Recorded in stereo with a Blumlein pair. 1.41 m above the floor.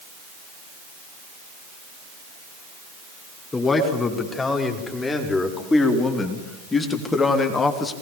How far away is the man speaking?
About 5 m.